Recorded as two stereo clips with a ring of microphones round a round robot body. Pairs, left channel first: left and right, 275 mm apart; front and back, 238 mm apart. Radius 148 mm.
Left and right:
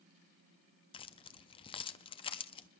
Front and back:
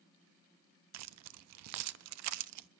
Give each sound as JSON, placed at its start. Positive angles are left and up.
{"t": 0.9, "sound": "keys jangling", "azimuth_deg": 165, "distance_m": 0.5}